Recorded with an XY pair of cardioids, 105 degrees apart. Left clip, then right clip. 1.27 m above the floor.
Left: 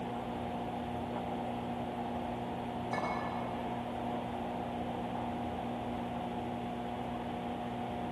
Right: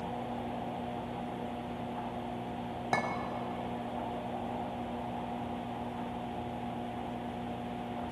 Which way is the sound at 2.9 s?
65° right.